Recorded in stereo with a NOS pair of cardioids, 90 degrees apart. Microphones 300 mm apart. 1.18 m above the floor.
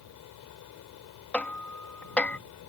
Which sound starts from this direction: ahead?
Hammering, at 1.3 s.